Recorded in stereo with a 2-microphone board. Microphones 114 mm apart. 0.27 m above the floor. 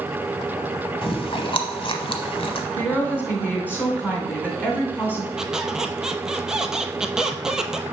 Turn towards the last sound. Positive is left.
turn(degrees=-5)  # may be behind; listen again after turning